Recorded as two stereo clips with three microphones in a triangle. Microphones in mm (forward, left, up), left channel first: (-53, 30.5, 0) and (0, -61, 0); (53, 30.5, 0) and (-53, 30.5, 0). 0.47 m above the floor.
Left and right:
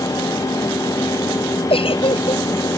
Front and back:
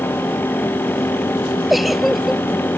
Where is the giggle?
90° left.